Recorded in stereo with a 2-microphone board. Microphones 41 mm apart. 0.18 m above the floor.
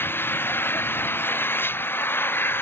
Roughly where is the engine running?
Left.